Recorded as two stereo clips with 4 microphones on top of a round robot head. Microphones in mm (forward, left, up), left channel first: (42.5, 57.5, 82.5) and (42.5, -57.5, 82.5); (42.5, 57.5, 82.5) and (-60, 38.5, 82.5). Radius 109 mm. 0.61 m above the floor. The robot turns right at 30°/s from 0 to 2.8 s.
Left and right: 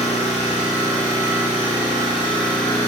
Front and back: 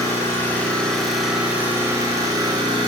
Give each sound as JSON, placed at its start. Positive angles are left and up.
{"t": 0.0, "sound": "an engine running", "azimuth_deg": 70, "distance_m": 4.5}